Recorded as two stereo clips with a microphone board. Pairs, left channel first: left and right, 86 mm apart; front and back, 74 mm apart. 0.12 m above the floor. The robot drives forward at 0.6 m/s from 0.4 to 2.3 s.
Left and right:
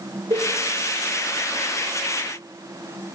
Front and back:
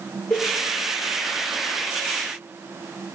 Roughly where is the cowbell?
Ahead right.